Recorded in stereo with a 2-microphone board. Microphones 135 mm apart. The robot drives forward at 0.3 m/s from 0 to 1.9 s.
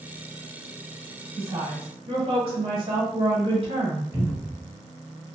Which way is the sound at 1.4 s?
45° right (ahead or behind).